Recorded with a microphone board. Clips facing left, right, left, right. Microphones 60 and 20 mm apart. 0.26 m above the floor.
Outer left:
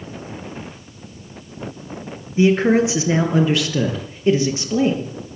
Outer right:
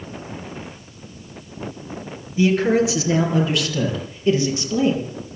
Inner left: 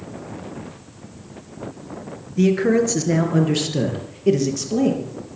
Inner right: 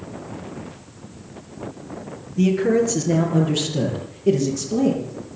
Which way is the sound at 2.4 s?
30° left (ahead or behind).